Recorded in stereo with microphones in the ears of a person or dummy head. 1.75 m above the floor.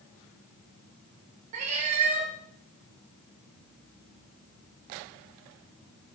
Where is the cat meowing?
30° right (ahead or behind), 1.1 m.